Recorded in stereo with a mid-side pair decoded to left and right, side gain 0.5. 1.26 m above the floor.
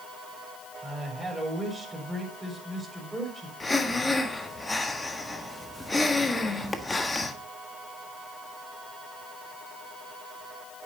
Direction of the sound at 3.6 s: 25° left.